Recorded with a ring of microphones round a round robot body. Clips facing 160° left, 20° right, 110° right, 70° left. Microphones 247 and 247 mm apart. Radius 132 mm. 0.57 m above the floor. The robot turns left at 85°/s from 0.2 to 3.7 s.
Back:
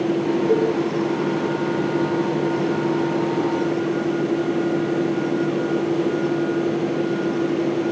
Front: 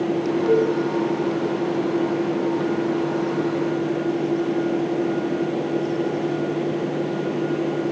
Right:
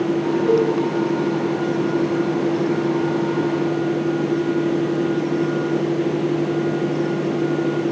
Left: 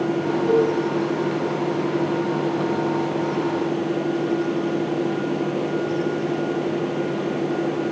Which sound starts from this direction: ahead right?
A cowbell, at 0.5 s.